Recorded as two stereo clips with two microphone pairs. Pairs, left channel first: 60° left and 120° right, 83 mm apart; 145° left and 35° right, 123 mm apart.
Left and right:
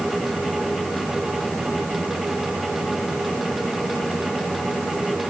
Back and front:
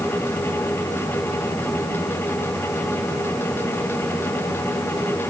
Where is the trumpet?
I don't hear a trumpet.